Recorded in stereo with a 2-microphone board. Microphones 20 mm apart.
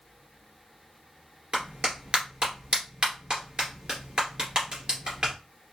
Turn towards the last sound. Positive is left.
turn(degrees=-50)  # may be behind; listen again after turning